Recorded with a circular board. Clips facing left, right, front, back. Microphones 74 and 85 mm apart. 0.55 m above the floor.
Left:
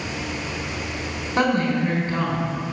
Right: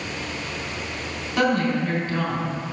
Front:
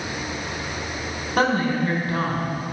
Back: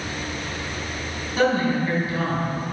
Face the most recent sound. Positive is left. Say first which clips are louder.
# left 1 dB, even
turn(degrees=35)